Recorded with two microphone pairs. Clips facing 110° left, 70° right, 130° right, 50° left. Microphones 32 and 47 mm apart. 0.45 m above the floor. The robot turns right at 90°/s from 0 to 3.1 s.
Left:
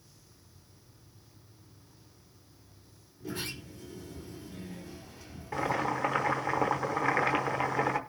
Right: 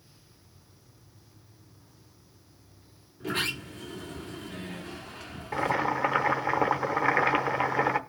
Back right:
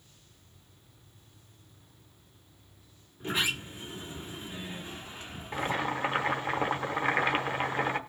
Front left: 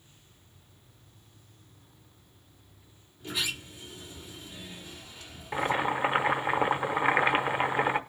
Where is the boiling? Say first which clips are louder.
Right 3 dB, front left 3 dB; 10° right, 0.9 m.